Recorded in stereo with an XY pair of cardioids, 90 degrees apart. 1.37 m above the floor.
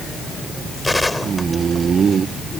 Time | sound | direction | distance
0.8 | a gunshot | 15° left | ?